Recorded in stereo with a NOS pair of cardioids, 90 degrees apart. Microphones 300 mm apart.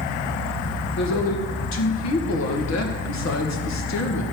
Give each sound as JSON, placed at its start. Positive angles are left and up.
{"t": 1.0, "sound": "a woman speaking", "azimuth_deg": 60, "distance_m": 2.5}